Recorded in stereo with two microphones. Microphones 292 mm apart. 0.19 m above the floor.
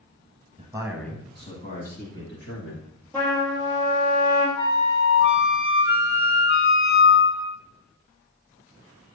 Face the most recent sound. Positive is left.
turn(degrees=45)  # may be behind; listen again after turning